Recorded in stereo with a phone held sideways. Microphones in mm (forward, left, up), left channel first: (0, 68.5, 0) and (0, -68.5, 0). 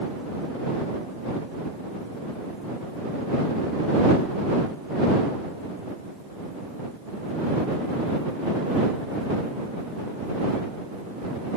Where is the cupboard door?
No cupboard door in this recording.